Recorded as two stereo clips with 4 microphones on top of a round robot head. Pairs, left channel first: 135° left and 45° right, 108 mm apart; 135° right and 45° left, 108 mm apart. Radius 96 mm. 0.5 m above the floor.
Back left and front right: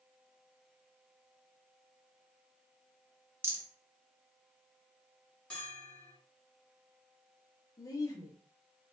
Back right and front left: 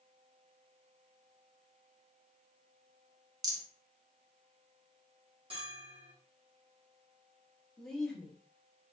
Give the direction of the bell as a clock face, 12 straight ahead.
10 o'clock.